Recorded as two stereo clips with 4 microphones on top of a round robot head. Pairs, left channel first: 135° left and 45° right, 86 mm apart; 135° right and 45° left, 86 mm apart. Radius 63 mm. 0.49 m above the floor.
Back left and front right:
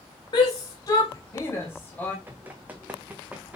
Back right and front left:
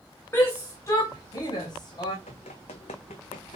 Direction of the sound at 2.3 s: 115° right.